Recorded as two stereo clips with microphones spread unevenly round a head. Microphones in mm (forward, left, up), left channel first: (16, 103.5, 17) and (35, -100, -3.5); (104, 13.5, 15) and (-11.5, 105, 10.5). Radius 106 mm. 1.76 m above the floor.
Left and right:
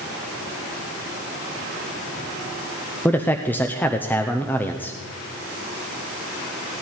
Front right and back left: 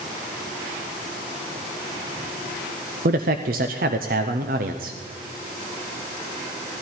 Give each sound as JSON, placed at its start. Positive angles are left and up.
{"t": 3.0, "sound": "a man speaking", "azimuth_deg": 175, "distance_m": 0.6}